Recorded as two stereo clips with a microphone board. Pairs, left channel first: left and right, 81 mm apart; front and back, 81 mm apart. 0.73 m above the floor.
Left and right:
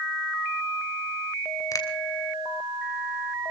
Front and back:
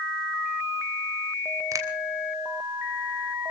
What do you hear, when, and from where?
1.7 s a finger snap: 135° left, 3 m